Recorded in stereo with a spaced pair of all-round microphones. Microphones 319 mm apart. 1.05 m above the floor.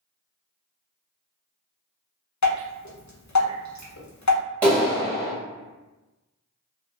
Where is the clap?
5° left (ahead or behind), 1.5 m.